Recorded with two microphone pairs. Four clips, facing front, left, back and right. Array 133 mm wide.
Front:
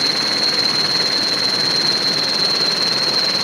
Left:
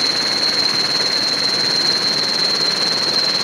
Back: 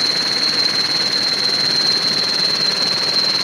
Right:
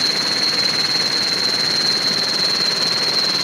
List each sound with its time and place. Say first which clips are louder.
0.0 s an insect: left 1 dB, front 2 dB; 40° right, 3 m